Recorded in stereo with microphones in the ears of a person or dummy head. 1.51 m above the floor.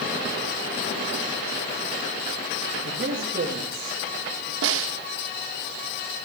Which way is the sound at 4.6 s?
70° right (ahead or behind).